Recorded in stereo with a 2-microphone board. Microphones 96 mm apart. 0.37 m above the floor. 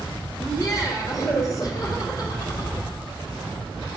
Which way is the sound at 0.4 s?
40° left (ahead or behind).